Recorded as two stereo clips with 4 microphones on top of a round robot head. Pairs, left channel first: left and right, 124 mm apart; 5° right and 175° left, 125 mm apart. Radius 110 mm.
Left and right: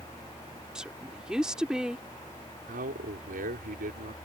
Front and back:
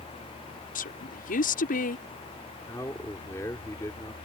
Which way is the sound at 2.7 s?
80° right.